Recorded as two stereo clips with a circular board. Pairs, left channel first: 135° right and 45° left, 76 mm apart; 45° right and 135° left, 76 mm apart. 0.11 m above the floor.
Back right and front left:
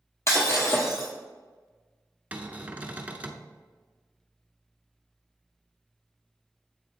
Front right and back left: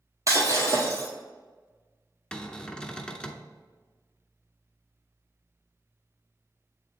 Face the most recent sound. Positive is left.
turn(degrees=15)